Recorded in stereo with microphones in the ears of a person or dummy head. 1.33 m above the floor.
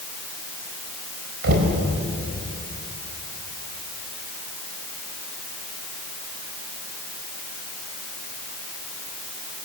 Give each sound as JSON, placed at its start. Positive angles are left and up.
{"t": 1.4, "sound": "knocking", "side_deg": -60, "distance_m": 4.0}